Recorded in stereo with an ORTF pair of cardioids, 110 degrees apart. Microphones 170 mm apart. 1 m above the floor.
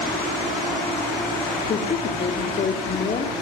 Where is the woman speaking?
45° left, 3 m.